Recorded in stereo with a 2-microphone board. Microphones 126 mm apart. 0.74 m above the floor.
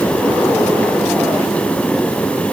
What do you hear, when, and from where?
Only background noise.